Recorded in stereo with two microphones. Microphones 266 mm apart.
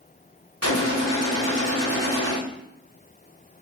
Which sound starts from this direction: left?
A gunshot, at 0.6 s.